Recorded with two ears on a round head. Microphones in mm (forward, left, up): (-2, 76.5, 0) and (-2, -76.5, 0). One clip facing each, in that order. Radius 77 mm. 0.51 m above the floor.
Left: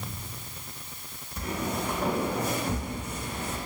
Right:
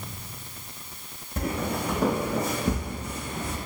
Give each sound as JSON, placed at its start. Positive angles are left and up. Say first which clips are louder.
{"t": 1.4, "sound": "footsteps", "louder": "right 3 dB", "side_deg": -45, "distance_m": 1.3}